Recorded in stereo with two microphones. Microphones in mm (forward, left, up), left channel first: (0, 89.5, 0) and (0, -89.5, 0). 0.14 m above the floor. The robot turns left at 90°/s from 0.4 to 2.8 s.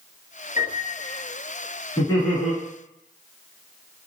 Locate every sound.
0.6 s a piano: 80° left, 1.5 m; by 1.2 s 20° left, 1.5 m
2.0 s laughter: 40° left, 2.0 m; by 2.5 s 15° right, 2.0 m